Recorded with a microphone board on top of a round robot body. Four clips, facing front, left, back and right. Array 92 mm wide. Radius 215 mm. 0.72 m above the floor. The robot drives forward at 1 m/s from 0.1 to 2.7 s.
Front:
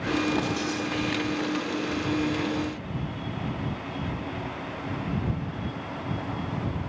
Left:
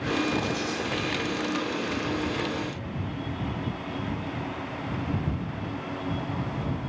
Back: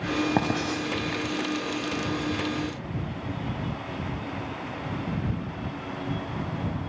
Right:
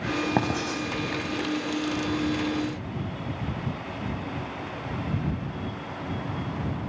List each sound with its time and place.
0.4 s writing: 130° right, 0.6 m; by 0.8 s 165° right, 0.8 m